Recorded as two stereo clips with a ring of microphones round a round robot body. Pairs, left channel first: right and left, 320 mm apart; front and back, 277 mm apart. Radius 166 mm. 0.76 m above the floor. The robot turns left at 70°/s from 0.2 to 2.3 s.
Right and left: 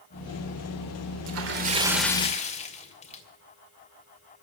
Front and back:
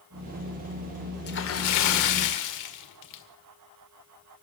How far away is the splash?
About 1.9 m.